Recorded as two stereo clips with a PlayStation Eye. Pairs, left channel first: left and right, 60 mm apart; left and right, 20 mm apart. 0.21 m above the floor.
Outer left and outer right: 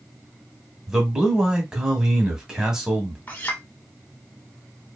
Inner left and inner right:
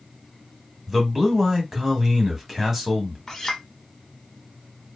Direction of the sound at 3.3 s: 30° left (ahead or behind).